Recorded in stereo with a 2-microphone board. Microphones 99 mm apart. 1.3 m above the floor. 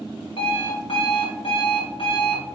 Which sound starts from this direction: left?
An alarm clock, at 0.4 s.